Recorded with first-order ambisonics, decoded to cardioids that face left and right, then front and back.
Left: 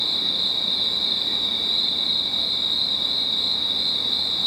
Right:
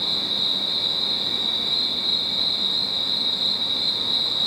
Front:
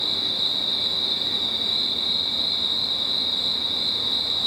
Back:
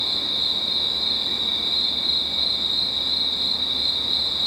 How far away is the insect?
About 1.8 m.